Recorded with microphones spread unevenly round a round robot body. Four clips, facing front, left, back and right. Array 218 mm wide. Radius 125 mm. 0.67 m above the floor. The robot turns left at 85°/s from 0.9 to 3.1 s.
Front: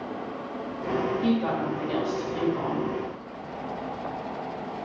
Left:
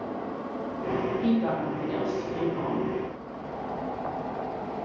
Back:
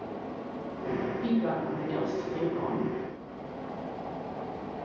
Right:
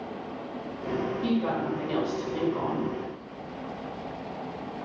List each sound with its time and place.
1.2 s a woman speaking: 25° left, 1.4 m; by 2.9 s 115° right, 1.4 m